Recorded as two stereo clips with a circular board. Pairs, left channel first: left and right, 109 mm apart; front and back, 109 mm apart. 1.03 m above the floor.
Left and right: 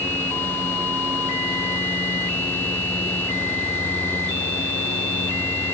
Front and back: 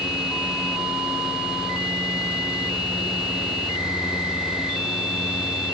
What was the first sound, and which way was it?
Only background noise.